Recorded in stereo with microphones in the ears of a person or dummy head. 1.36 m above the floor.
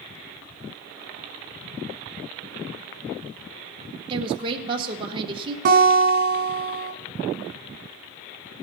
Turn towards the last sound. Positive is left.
turn(degrees=-50)  # may be behind; listen again after turning